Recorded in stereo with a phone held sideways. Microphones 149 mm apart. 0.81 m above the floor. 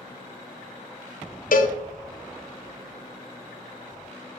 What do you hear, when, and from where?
1.5 s a cowbell: 70° left (ahead or behind), 0.6 m